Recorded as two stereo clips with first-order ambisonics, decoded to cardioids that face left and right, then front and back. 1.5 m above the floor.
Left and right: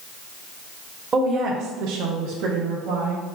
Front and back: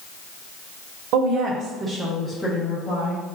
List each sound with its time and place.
1.1 s a woman speaking: 155° right, 0.7 m; by 3.2 s 65° right, 1.2 m